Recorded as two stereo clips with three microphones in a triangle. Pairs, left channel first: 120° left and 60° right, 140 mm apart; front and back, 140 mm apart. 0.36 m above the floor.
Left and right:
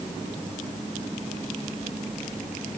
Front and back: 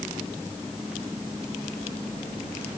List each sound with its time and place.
Only background noise.